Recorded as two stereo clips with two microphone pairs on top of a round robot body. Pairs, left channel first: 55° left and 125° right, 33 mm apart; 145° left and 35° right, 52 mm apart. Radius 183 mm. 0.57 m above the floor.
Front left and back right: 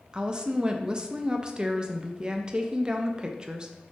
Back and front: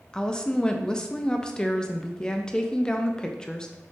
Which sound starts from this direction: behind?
A woman speaking, at 0.1 s.